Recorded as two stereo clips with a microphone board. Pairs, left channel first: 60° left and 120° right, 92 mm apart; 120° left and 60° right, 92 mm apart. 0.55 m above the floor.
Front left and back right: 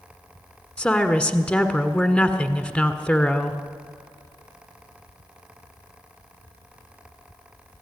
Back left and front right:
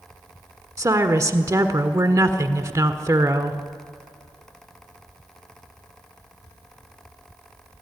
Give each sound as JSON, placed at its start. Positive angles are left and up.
{"t": 0.8, "sound": "a woman speaking", "azimuth_deg": -15, "distance_m": 1.5}